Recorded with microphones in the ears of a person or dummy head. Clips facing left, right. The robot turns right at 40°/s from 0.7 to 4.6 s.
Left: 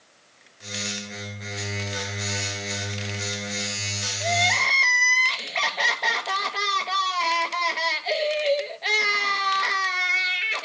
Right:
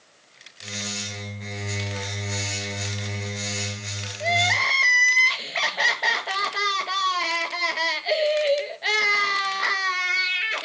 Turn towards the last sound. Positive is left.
turn(degrees=-5)  # may be behind; listen again after turning